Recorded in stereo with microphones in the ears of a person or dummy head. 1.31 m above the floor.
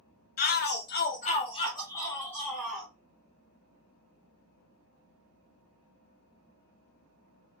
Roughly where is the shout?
Left.